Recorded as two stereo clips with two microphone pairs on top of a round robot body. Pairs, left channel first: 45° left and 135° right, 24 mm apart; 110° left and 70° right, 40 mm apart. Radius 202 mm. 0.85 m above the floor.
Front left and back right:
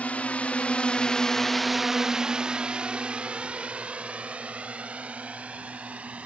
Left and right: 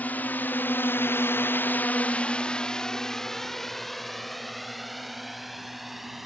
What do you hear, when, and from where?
0.0 s a drone: 60° left; by 6.3 s 155° right